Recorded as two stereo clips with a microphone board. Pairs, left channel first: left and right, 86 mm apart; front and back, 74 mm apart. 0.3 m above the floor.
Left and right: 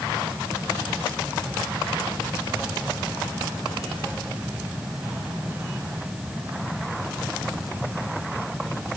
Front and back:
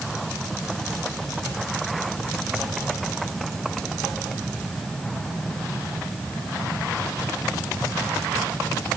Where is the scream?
I don't hear a scream.